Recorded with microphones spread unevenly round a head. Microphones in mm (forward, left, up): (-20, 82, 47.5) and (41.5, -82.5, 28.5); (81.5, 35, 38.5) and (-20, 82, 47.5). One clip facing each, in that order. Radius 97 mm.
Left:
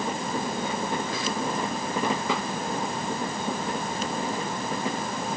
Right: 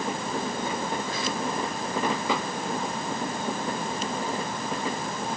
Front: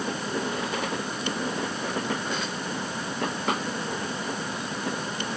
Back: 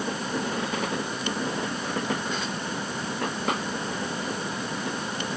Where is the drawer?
No drawer in this recording.